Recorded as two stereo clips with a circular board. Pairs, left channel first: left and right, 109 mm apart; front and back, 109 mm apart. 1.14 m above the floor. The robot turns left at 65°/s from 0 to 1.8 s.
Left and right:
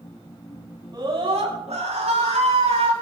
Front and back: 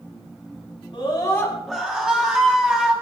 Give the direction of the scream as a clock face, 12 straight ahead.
1 o'clock.